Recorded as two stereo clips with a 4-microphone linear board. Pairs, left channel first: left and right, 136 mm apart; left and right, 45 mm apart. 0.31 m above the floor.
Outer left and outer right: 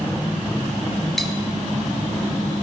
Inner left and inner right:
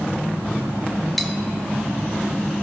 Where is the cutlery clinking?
Centre (ahead or behind), 0.7 m.